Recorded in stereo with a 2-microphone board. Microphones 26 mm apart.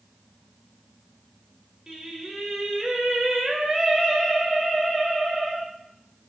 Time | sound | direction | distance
1.9 | singing | 15° right (ahead or behind) | 0.5 m